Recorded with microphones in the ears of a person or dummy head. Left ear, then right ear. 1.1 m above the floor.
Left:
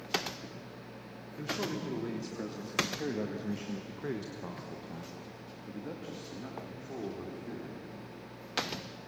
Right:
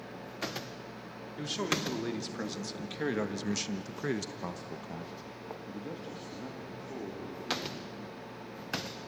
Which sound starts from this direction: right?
A man speaking, at 1.4 s.